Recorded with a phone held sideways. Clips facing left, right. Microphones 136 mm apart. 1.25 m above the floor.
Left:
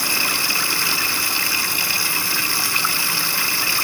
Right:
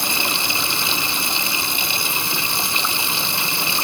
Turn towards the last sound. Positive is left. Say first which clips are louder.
# right 1 dB
turn(degrees=-20)  # may be behind; listen again after turning